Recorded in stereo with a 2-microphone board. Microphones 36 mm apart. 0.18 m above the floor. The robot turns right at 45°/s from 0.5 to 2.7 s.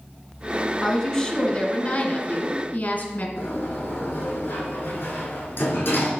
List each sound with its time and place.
0.8 s a woman speaking: 15° left, 1.6 m; by 3.3 s 100° left, 1.6 m
3.4 s a sliding door: 65° left (ahead or behind), 3 m